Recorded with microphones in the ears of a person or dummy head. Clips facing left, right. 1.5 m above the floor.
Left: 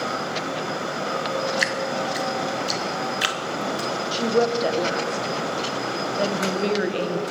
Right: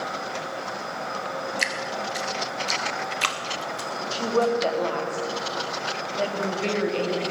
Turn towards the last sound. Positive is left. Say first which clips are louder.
# left 1 dB
turn(degrees=20)  # may be behind; listen again after turning